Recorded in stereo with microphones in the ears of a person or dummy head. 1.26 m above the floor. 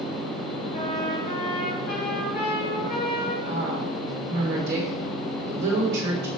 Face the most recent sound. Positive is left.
turn(degrees=-65)  # may be behind; listen again after turning